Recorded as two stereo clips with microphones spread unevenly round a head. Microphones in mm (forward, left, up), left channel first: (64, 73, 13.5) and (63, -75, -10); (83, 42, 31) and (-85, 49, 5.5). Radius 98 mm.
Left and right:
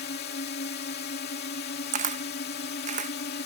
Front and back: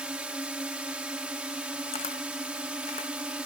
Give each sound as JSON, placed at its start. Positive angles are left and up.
{"t": 0.0, "sound": "a drone", "azimuth_deg": 95}
{"t": 1.9, "sound": "a camera shutter", "azimuth_deg": -55}